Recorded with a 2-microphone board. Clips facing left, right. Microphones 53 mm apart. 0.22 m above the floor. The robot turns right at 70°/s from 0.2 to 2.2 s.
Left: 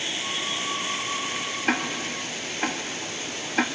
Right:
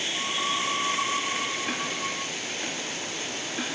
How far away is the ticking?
About 0.8 m.